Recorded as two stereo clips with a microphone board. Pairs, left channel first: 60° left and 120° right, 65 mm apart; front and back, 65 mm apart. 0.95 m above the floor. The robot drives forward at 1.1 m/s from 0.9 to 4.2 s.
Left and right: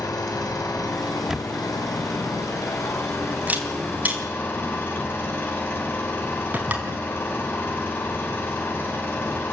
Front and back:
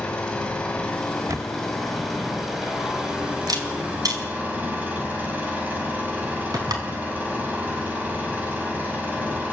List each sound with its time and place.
0.0 s an engine running: 70° left, 5 m; by 9.5 s 115° left, 5 m
1.3 s a camera shutter: 155° left, 0.7 m; by 6.9 s 175° left, 4 m